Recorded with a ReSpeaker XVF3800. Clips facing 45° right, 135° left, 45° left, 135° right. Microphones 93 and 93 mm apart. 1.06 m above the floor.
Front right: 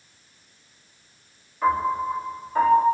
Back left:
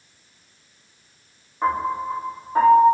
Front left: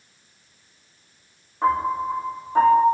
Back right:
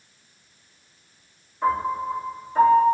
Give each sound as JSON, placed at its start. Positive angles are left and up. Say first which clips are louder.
{"t": 1.6, "sound": "a piano", "louder": "front right 1 dB, front left 2 dB", "azimuth_deg": 80, "distance_m": 2.0}